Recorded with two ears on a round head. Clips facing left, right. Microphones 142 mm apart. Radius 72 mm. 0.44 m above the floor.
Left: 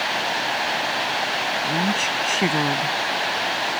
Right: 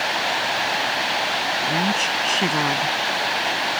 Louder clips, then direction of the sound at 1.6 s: Right 1 dB; centre (ahead or behind).